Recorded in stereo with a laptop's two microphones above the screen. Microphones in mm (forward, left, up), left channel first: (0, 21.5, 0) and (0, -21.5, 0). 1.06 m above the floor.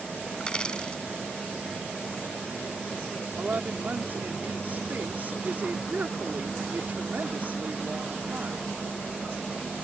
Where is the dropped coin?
20° left (ahead or behind).